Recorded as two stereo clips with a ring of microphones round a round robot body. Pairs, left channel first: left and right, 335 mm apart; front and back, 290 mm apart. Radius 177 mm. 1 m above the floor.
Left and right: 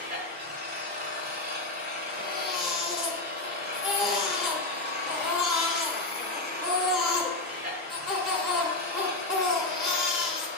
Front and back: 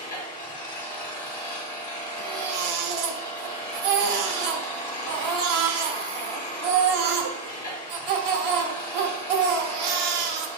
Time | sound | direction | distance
0.0 | an engine running | 30° right | 2.5 m
2.2 | a baby crying | straight behind | 1.2 m